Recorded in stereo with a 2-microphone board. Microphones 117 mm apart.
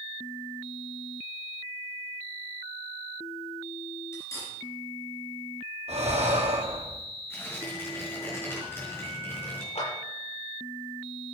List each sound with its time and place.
4.1 s cutlery clinking: 25° left (ahead or behind), 4 m
5.9 s breathing: 70° right (ahead or behind), 3.5 m
7.3 s tearing paper: 20° left (ahead or behind), 4.5 m
9.8 s a clap: 80° left, 7.5 m